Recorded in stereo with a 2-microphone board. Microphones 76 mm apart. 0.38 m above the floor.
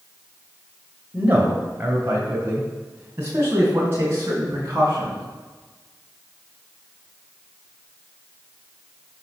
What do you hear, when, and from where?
1.1 s a man speaking: 25° right (ahead or behind), 1.8 m; by 5.2 s 35° right (ahead or behind), 4.5 m